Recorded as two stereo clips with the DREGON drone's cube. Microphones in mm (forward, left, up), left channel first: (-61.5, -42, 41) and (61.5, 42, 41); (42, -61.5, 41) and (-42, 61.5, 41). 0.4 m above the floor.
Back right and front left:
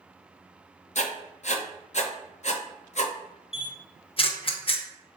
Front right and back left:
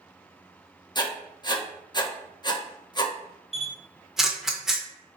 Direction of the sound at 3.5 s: 150° right.